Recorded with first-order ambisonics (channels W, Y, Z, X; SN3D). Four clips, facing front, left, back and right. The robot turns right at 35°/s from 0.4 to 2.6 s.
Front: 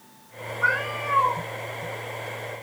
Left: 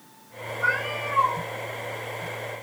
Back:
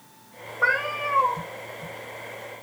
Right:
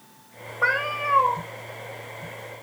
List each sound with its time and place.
0.6 s a cat meowing: 120° right, 1.4 m; by 1.4 s 95° right, 1.4 m